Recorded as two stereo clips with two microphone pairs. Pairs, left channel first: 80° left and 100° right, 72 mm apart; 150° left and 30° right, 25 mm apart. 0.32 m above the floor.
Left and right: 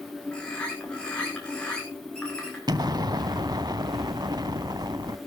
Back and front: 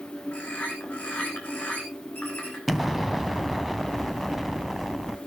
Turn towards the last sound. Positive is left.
turn(degrees=-115)